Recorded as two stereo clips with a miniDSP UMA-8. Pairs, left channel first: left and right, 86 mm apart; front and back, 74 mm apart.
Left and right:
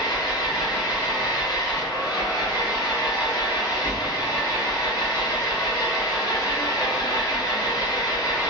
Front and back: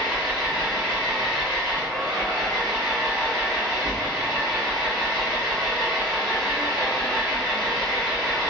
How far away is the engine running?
About 1.8 m.